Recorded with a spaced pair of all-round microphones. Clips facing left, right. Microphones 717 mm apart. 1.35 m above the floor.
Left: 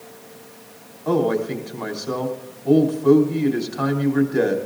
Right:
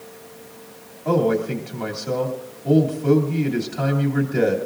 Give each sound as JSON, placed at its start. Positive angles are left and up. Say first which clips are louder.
{"t": 1.1, "sound": "a man speaking", "louder": "even", "side_deg": -55, "distance_m": 3.0}